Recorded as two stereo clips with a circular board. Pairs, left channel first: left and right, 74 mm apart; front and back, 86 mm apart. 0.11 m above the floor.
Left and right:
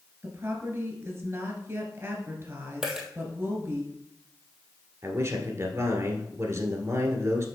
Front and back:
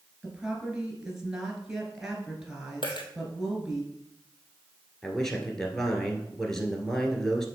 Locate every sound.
0.2 s a woman speaking: 105° right, 1.9 m
2.8 s a dropped coin: 10° right, 1.4 m
5.0 s a man speaking: 85° right, 1.4 m